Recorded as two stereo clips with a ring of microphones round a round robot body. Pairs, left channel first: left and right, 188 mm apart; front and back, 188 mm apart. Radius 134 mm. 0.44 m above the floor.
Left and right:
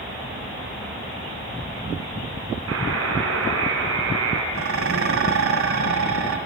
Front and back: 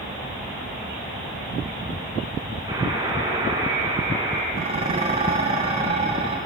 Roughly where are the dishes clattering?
Right.